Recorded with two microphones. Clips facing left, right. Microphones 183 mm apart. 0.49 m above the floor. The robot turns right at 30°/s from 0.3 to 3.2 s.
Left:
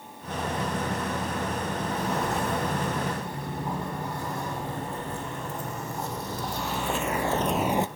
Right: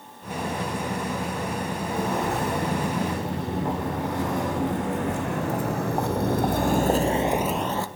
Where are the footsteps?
45° right (ahead or behind), 4 m; by 7.9 s 20° left (ahead or behind), 0.6 m.